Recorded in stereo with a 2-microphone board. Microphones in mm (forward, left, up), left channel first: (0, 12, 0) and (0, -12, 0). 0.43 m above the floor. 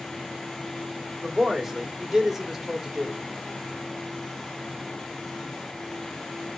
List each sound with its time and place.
1.2 s a man speaking: 15° right (ahead or behind), 1.7 m